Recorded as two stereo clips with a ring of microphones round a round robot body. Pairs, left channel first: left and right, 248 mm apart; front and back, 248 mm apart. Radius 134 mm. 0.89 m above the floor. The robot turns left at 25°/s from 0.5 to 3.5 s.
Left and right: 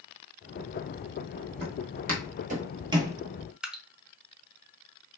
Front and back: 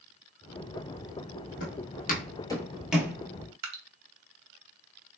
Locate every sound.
1.6 s footsteps: 30° right, 1.4 m; by 3.2 s 145° right, 0.9 m
3.6 s dripping: 175° right, 0.7 m